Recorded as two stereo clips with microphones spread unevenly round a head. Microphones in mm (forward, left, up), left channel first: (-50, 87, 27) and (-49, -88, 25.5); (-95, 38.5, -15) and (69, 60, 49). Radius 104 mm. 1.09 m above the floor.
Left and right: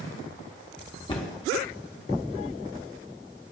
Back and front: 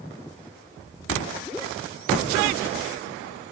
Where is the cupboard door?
150° left, 0.9 m.